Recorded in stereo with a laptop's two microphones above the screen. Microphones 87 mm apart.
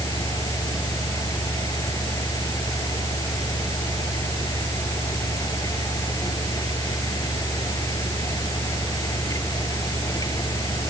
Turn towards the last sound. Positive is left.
turn(degrees=40)  # may be behind; listen again after turning